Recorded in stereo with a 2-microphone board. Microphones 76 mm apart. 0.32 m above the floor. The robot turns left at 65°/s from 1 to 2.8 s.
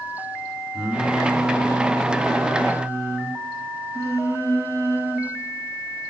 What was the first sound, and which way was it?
Singing, 15° right.